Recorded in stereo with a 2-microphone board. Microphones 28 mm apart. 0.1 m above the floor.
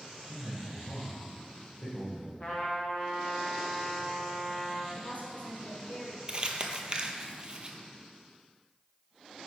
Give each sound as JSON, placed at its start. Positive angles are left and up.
{"t": 0.3, "sound": "a man speaking", "side_deg": 50, "distance_m": 2.5}
{"t": 2.4, "sound": "a trumpet", "side_deg": 30, "distance_m": 1.7}
{"t": 5.0, "sound": "a woman speaking", "side_deg": 60, "distance_m": 2.0}
{"t": 6.3, "sound": "crumpling", "side_deg": -35, "distance_m": 0.7}